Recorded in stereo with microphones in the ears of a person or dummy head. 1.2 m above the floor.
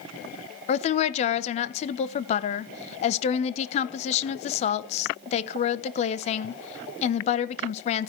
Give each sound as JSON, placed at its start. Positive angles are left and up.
{"t": 0.7, "sound": "a woman speaking", "side_deg": 40, "distance_m": 0.6}